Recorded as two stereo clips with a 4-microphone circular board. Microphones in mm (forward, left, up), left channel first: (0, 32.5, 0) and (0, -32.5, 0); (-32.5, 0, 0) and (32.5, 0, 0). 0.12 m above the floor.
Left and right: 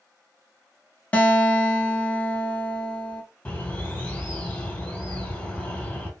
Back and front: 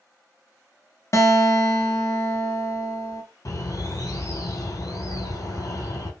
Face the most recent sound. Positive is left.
turn(degrees=155)